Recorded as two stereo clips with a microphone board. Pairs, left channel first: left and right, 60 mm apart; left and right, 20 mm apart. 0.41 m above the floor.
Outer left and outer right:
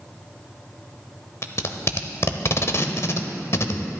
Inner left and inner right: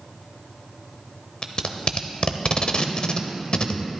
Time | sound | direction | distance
1.4 | tape being pulled | 50° left (ahead or behind) | 0.6 m